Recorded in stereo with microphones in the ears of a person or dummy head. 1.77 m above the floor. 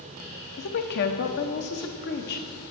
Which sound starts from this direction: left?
A woman speaking, at 0.6 s.